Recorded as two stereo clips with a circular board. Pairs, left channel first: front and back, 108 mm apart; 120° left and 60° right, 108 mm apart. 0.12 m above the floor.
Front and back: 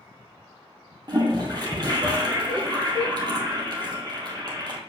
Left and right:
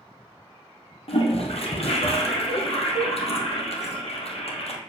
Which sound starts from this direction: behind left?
A toilet flushing, at 1.1 s.